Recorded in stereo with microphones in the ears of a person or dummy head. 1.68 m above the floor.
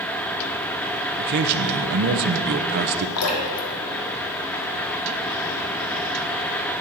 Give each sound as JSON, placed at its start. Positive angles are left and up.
{"t": 1.2, "sound": "a man speaking", "side_deg": -50, "distance_m": 0.9}
{"t": 3.2, "sound": "dripping", "side_deg": 90, "distance_m": 2.0}